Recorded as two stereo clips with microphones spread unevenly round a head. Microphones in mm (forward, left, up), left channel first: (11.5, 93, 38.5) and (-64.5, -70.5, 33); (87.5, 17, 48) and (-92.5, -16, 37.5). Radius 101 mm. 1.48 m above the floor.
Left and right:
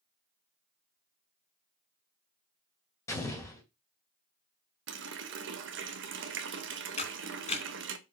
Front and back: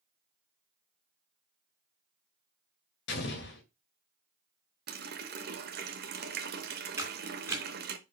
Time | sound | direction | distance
3.1 | an explosion | 10° right | 2.0 m
4.9 | a running tap | 130° right | 1.3 m
7.0 | a camera shutter | 110° left | 2.5 m